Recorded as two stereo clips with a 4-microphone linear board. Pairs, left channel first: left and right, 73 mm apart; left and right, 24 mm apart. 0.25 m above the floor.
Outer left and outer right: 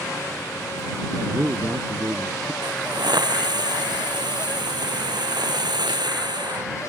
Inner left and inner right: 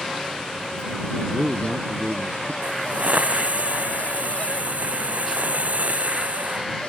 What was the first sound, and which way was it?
A man speaking, 40° right (ahead or behind).